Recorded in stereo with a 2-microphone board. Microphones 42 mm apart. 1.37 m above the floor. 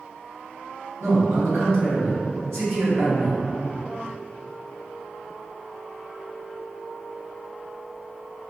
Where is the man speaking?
80° right, 1.6 m.